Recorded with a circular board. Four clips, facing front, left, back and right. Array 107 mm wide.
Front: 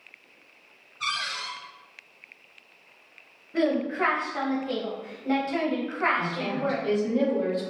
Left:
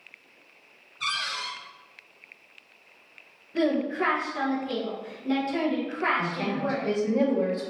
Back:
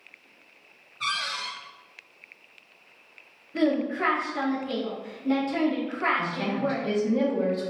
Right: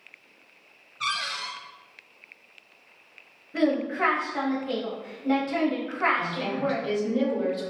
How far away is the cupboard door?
About 1.8 m.